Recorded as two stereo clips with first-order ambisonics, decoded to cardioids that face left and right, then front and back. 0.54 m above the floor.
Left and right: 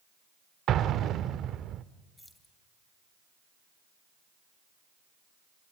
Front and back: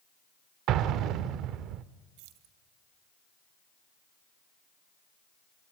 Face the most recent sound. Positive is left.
turn(degrees=175)